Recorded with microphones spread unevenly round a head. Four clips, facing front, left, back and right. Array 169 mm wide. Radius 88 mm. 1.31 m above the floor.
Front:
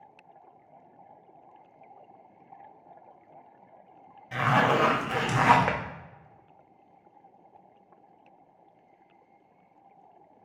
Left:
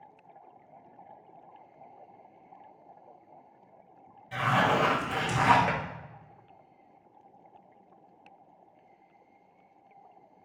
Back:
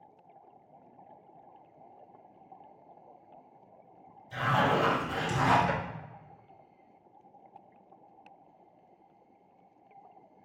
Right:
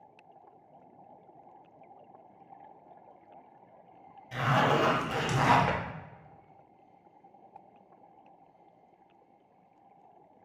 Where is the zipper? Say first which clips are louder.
Left 1 dB, front 3 dB; straight ahead, 0.9 m.